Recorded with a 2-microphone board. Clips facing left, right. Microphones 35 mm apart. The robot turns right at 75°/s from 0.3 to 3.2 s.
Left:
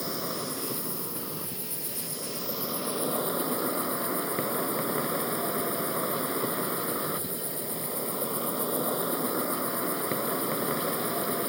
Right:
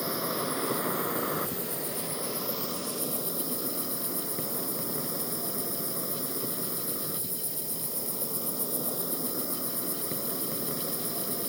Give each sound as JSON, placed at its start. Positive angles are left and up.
{"t": 0.0, "sound": "an insect", "azimuth_deg": -170}